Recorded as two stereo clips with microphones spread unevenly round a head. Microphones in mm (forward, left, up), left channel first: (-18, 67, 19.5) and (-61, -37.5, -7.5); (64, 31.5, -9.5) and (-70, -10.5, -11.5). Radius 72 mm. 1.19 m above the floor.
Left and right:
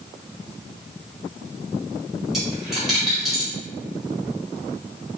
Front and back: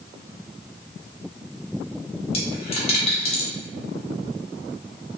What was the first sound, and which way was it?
A dropped coin, 15° right.